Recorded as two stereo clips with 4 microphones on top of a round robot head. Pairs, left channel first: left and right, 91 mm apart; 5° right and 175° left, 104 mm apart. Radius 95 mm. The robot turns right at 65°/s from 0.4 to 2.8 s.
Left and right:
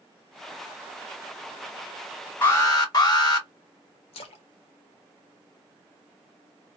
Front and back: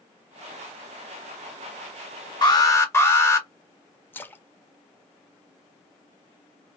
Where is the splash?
70° left, 0.6 m.